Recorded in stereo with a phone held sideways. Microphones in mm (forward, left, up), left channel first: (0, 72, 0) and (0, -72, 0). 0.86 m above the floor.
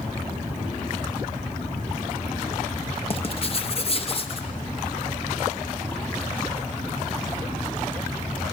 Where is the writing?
40° left (ahead or behind), 0.9 m.